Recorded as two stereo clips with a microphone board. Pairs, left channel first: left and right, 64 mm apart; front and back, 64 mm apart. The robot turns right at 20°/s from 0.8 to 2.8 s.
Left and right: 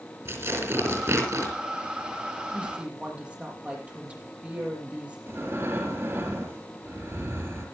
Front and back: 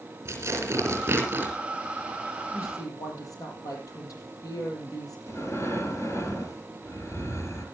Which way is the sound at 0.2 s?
135° right.